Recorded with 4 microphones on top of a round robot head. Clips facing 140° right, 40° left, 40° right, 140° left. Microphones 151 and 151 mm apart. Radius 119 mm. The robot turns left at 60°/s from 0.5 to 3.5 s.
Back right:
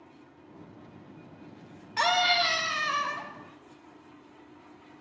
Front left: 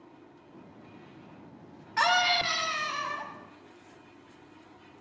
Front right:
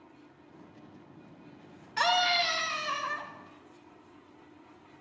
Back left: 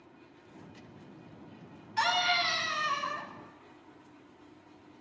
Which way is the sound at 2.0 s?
70° right.